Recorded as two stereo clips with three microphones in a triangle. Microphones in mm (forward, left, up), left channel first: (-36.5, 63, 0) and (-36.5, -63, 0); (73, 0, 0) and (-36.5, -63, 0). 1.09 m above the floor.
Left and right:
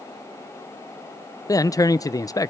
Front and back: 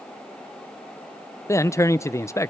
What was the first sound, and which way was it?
A man speaking, 70° left.